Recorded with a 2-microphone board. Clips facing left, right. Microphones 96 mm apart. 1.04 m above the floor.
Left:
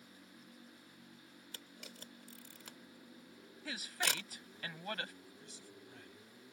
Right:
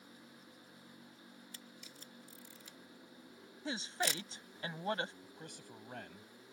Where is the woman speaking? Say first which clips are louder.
Right 3 dB; 25° right (ahead or behind).